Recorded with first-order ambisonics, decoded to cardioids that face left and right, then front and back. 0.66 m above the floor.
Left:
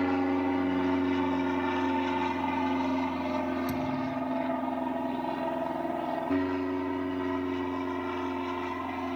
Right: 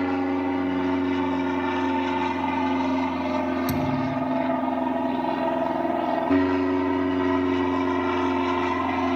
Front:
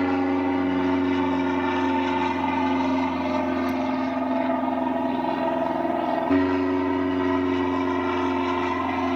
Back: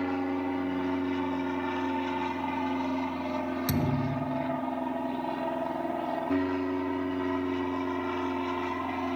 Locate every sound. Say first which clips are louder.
0.0 s an aircraft: right 3 dB, front 8 dB; 20° right; by 9.2 s 55° right
3.7 s a thud: right 6 dB, front 6 dB; 145° right